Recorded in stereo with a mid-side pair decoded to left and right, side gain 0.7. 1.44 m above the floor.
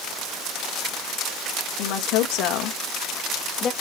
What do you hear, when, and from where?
1.8 s a woman speaking: 65° left, 2 m; by 3.7 s 35° left, 1.5 m